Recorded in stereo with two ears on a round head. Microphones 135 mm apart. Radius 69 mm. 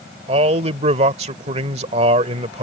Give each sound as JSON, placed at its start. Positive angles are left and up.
{"t": 0.3, "sound": "a man speaking", "side_deg": -45}